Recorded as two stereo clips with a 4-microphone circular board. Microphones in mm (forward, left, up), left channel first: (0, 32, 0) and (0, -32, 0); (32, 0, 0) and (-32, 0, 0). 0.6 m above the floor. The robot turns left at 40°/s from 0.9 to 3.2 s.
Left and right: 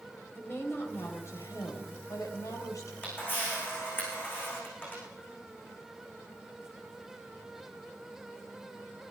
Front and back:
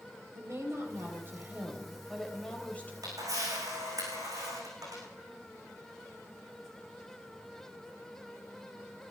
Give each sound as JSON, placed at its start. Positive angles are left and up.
{"t": 0.3, "sound": "a woman speaking", "azimuth_deg": 145, "distance_m": 3.5}
{"t": 3.0, "sound": "a camera shutter", "azimuth_deg": 155, "distance_m": 8.5}